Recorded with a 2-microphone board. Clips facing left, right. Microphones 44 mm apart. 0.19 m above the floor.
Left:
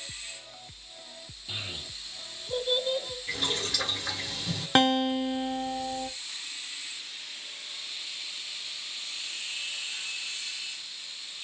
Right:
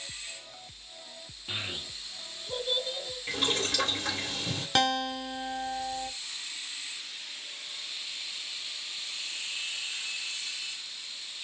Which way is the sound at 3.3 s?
50° right (ahead or behind).